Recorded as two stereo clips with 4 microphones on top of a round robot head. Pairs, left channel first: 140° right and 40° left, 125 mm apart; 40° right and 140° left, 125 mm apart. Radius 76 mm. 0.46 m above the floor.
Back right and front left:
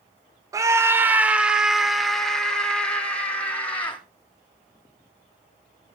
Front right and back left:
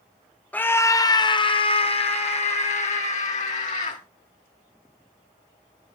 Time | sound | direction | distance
0.5 | a scream | 20° left | 1.1 m